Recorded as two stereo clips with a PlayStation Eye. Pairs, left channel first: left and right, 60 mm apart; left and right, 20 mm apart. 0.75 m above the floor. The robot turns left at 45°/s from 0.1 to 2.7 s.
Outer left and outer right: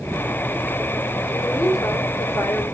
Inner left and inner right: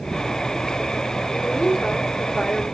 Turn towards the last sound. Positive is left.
turn(degrees=55)